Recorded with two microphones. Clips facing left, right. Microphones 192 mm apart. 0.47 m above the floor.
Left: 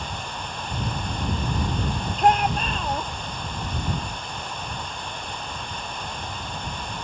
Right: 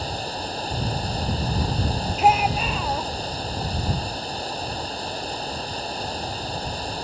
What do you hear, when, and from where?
0.0 s running water: 35° right (ahead or behind)
2.2 s a shout: 5° right (ahead or behind)